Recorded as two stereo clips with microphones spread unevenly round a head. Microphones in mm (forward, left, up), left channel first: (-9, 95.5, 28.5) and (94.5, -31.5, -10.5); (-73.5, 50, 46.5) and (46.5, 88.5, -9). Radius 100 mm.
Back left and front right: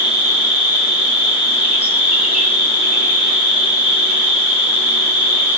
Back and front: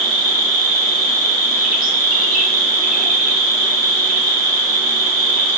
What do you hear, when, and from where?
0.0 s an insect: 35° left, 1.0 m